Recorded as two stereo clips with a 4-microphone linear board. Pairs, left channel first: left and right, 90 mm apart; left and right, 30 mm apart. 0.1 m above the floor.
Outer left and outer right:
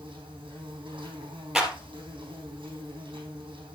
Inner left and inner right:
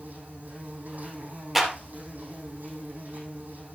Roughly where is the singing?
No singing in this recording.